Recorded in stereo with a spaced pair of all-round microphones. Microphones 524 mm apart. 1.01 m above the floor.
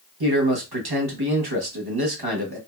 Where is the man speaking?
45° right (ahead or behind), 1.0 m.